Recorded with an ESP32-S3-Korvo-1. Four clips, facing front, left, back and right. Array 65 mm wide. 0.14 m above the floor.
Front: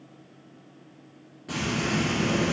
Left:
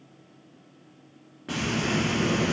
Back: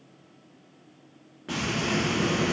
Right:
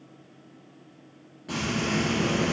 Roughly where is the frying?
Behind left.